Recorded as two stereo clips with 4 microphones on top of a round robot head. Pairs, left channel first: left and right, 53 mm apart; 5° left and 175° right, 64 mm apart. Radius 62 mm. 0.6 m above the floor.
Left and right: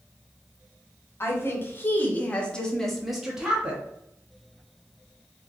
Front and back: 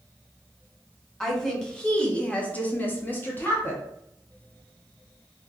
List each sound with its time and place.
1.2 s a woman speaking: 85° left, 1.3 m; by 3.8 s 35° right, 1.2 m